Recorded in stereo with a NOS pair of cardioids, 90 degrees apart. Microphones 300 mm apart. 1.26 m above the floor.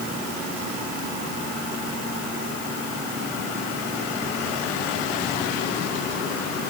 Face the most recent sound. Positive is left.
No sound to turn to.